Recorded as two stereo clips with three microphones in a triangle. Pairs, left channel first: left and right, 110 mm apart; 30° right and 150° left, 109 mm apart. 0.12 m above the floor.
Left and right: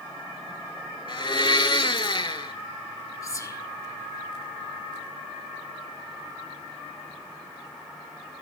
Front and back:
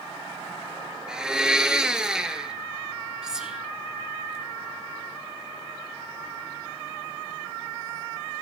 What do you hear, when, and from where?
1.1 s a blender: 70° left, 0.6 m
3.2 s whispering: 70° left, 1.3 m